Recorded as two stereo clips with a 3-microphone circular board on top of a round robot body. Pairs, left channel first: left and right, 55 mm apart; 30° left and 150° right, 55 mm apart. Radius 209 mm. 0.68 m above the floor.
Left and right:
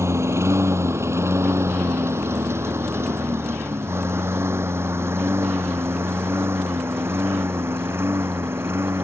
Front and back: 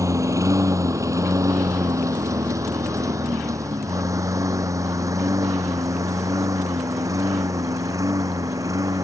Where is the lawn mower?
125° right; by 9.1 s 135° right.